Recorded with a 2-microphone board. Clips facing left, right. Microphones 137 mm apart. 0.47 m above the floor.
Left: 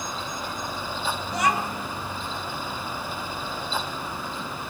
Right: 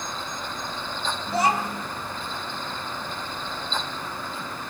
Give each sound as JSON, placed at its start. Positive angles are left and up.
{"t": 1.3, "sound": "a child speaking", "side_deg": -30, "distance_m": 2.5}